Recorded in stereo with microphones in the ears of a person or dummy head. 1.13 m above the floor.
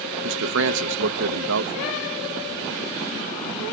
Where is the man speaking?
80° right, 0.8 m.